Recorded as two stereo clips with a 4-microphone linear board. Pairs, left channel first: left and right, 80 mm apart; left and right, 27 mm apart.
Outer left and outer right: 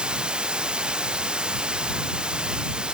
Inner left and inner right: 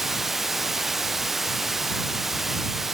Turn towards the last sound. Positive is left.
turn(degrees=-10)  # may be behind; listen again after turning